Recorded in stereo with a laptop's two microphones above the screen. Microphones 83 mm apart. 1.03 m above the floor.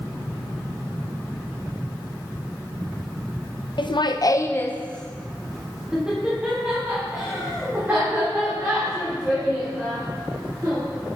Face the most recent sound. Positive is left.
turn(degrees=-20)  # may be behind; listen again after turning